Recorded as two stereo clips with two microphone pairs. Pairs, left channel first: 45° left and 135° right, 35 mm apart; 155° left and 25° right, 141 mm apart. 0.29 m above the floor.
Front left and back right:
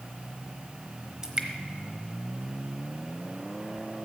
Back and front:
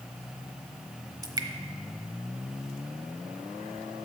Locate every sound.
1.2 s dripping: 75° right, 1.0 m